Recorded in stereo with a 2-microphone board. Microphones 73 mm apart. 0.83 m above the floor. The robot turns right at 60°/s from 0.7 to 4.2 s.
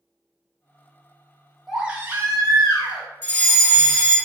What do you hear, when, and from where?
1.7 s a baby crying: 175° right, 0.6 m; by 3.0 s 95° right, 0.6 m
3.2 s a fire alarm: 25° left (ahead or behind), 1.4 m; by 4.2 s 15° left (ahead or behind), 1.4 m